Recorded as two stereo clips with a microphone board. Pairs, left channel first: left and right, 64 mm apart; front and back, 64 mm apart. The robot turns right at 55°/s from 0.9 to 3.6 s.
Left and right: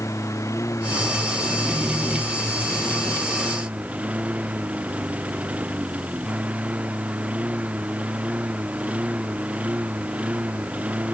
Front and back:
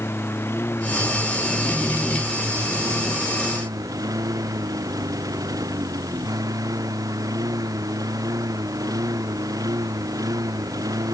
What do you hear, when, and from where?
0.0 s a lawn mower: 50° left; by 11.1 s 160° right